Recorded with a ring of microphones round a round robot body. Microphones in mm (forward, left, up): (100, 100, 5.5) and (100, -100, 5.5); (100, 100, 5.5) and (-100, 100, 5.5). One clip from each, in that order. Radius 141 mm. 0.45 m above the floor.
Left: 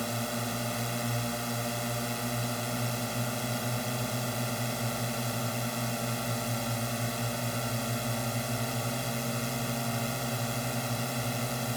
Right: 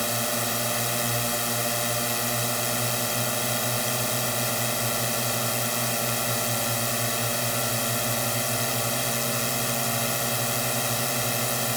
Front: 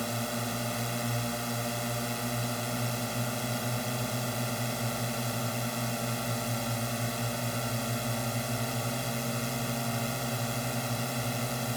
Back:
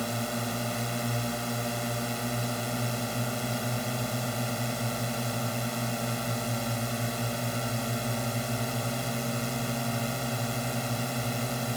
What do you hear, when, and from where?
0.0 s a drone: 85° right